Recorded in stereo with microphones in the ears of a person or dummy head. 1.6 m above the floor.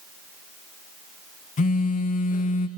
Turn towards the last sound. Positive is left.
turn(degrees=40)  # may be behind; listen again after turning